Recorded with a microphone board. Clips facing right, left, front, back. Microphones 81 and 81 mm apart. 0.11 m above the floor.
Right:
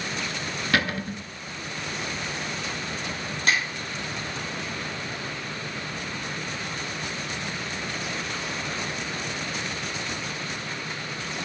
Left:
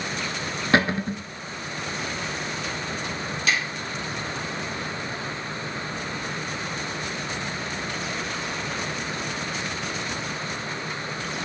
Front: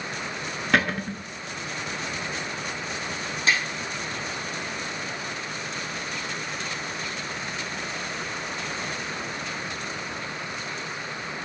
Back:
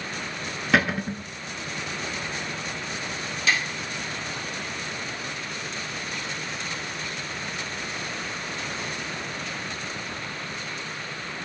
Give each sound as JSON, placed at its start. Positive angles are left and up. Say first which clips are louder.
{"t": 0.7, "sound": "a cupboard door", "louder": "left 5 dB, back 1 dB", "azimuth_deg": 95, "distance_m": 0.5}
{"t": 3.5, "sound": "a snare drum", "louder": "right 1 dB, front 1 dB", "azimuth_deg": -50, "distance_m": 2.5}